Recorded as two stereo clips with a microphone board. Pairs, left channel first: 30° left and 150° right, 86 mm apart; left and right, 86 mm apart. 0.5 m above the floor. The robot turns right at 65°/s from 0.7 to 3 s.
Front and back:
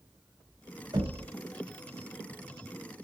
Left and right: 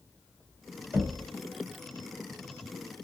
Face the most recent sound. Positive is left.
turn(degrees=-15)